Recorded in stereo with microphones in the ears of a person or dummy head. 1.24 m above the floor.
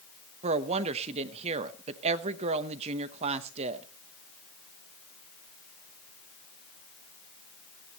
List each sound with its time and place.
0.4 s a woman speaking: 35° right (ahead or behind), 0.9 m